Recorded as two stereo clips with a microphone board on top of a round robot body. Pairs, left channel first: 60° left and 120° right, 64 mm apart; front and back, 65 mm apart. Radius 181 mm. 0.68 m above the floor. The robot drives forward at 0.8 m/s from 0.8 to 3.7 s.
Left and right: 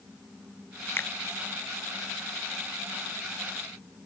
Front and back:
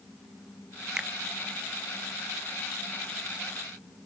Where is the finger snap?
105° left; by 1.1 s 115° left.